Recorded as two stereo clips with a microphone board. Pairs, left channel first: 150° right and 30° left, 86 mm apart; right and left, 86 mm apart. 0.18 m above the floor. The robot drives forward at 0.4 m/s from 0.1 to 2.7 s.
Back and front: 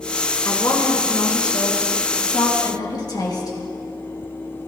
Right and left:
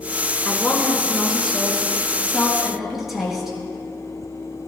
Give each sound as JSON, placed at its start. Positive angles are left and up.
{"t": 0.5, "sound": "a woman speaking", "azimuth_deg": 175, "distance_m": 2.5}